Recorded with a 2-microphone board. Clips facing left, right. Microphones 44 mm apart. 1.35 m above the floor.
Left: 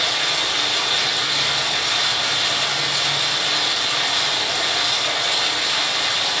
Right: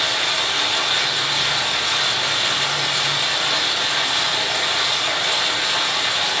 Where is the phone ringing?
I don't hear a phone ringing.